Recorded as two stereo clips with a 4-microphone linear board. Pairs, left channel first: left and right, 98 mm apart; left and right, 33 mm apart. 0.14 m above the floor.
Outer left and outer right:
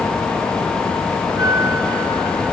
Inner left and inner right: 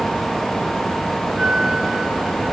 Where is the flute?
30° right (ahead or behind), 3 m.